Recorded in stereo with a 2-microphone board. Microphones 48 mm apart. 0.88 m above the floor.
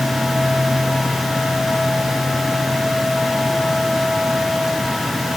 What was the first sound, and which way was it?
Only background noise.